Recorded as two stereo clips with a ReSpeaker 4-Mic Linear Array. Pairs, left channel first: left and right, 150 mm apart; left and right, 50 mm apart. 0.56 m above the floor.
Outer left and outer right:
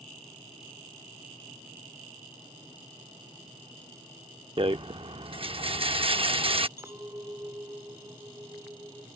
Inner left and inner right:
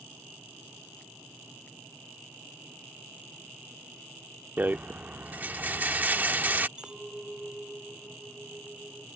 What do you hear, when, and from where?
4.6 s a rattle: 40° right (ahead or behind)
6.8 s a clink: 20° right (ahead or behind)